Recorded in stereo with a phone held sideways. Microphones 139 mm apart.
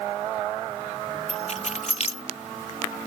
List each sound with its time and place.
1.3 s keys jangling: 60° left (ahead or behind)